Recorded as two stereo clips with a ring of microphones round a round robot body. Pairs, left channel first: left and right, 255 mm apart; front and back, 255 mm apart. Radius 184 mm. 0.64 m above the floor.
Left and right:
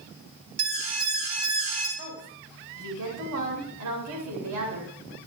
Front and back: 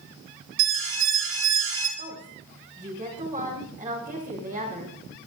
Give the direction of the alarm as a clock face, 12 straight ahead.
4 o'clock.